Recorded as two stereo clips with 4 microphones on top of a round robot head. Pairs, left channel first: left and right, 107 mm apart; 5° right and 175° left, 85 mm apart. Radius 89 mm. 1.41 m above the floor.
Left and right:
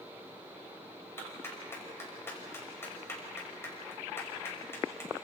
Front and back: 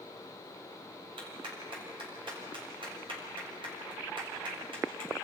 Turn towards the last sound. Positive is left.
turn(degrees=160)